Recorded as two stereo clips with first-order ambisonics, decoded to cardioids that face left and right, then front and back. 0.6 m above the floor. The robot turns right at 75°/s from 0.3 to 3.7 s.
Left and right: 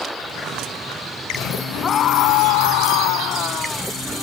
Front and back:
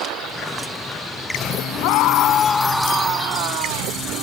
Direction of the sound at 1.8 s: 20° left.